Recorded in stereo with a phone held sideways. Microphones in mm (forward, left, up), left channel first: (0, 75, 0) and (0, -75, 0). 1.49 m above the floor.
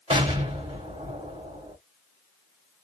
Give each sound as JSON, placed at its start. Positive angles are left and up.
{"t": 0.1, "sound": "an explosion", "side_deg": -40, "distance_m": 1.2}